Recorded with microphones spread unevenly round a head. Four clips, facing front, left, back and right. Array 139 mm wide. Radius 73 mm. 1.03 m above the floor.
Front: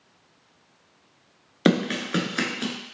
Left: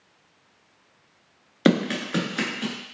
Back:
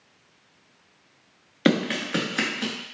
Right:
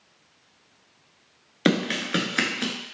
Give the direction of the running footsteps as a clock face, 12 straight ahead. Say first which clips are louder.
Left 2 dB, front 1 dB; 10 o'clock.